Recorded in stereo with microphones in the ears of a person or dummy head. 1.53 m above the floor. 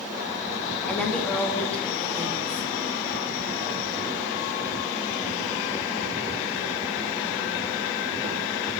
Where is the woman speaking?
5° left (ahead or behind), 1.0 m.